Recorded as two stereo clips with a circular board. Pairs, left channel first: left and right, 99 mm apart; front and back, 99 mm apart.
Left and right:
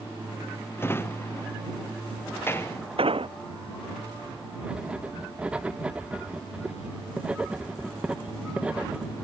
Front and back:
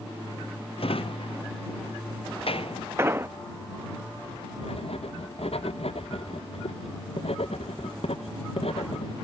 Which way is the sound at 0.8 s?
25° left.